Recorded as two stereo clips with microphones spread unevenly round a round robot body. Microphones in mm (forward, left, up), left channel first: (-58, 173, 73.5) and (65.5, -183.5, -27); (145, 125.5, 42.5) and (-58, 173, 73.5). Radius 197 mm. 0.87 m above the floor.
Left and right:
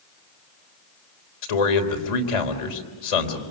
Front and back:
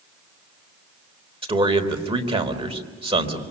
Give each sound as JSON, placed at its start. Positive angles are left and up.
{"t": 1.4, "sound": "a man speaking", "azimuth_deg": 100, "distance_m": 4.0}